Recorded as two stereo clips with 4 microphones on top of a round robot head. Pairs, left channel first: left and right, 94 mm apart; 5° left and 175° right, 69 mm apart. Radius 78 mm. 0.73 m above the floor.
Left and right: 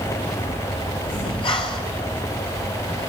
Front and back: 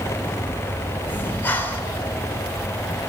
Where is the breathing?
65° left, 3 m.